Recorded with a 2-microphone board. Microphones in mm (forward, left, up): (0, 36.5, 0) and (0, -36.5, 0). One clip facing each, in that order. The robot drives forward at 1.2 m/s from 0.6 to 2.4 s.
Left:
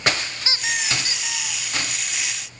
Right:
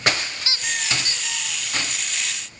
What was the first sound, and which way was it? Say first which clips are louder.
A squeak: left 3 dB; 20° left (ahead or behind).